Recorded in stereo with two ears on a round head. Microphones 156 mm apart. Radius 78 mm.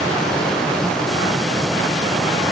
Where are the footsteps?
No footsteps in this recording.